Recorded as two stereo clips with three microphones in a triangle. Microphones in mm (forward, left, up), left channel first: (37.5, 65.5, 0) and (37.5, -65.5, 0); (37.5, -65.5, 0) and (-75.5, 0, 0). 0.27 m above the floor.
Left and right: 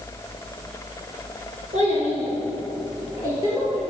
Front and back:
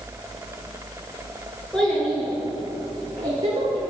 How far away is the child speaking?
About 3 m.